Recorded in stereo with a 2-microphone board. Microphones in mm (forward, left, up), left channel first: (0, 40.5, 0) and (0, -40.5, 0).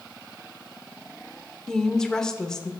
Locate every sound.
1.7 s a woman speaking: 10° left (ahead or behind), 0.9 m